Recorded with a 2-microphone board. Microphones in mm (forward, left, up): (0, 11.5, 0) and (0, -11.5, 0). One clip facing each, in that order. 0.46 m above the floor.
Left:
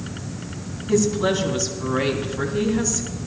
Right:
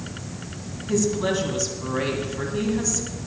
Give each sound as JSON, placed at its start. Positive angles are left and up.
{"t": 0.9, "sound": "a woman speaking", "side_deg": 5, "distance_m": 2.5}